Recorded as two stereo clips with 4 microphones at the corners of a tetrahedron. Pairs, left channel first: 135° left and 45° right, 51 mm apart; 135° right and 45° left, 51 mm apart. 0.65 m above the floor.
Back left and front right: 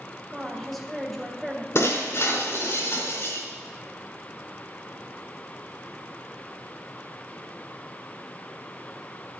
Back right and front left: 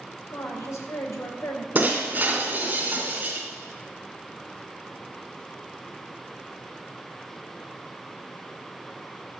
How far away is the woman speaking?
About 2.5 m.